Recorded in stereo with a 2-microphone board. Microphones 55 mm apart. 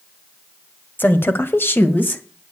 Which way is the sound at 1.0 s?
35° left (ahead or behind).